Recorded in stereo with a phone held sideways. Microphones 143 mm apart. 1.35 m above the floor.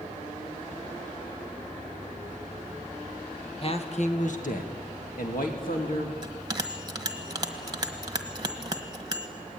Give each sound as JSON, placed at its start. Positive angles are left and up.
{"t": 3.6, "sound": "a man speaking", "side_deg": 40, "distance_m": 1.4}
{"t": 6.2, "sound": "a bell", "side_deg": -25, "distance_m": 1.5}